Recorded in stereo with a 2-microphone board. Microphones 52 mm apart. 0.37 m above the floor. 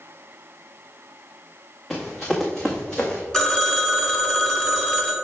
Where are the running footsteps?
5° left (ahead or behind), 2 m; by 3.2 s 15° left (ahead or behind), 1.4 m.